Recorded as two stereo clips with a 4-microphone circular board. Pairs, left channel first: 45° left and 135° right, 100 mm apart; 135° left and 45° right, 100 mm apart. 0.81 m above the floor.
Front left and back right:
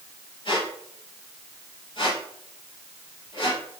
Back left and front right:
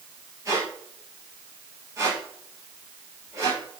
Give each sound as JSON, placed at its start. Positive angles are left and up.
{"t": 0.5, "sound": "a squeak", "azimuth_deg": 10, "distance_m": 2.5}